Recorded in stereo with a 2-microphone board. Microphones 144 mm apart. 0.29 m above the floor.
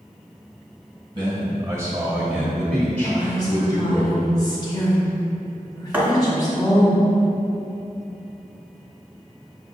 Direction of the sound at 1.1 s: 30° right (ahead or behind).